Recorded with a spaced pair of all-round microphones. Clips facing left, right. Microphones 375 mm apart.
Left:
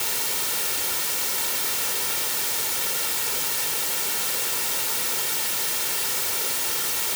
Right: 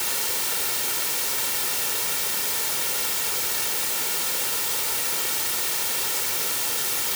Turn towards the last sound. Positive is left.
No sound to turn to.